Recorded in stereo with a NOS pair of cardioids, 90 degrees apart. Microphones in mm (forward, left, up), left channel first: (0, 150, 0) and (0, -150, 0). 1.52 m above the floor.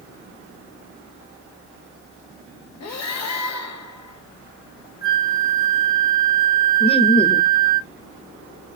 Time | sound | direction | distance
2.8 | breathing | 60° left | 2 m
5.0 | a flute | 30° left | 1.6 m
6.8 | laughter | 20° left | 1.6 m